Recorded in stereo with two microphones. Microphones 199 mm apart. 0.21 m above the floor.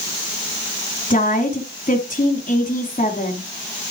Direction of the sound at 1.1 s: 40° left (ahead or behind).